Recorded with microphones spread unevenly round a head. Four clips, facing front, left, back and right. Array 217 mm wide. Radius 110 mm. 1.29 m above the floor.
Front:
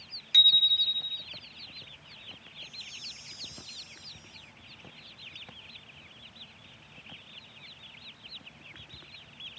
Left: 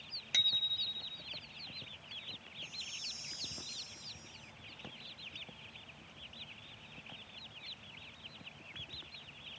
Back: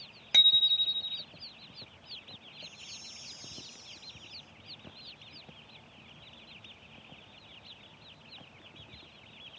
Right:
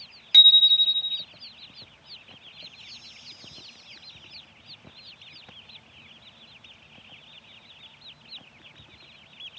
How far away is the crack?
No crack in this recording.